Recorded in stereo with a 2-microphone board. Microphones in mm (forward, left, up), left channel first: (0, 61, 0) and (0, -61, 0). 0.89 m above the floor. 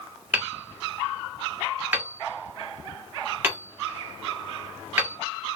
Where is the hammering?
15° right (ahead or behind), 1.1 m.